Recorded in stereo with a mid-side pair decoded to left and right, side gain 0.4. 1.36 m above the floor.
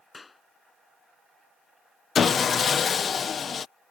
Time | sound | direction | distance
0.1 | a clap | 25° left | ?
2.1 | sawing | 50° left | ?